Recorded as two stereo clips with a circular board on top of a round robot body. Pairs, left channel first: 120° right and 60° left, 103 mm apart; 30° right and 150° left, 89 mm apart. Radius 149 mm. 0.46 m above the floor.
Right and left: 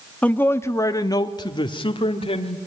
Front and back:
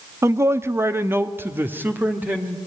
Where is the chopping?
No chopping in this recording.